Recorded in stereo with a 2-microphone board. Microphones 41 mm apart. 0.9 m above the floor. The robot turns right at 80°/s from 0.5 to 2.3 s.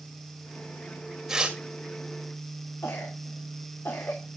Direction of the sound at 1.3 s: 15° right (ahead or behind).